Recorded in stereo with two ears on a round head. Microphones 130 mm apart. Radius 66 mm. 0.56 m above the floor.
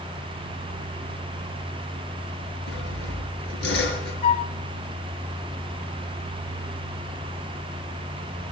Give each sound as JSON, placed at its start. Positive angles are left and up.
{"t": 2.7, "sound": "sawing", "side_deg": 80, "distance_m": 5.0}
{"t": 4.2, "sound": "a flute", "side_deg": 45, "distance_m": 1.4}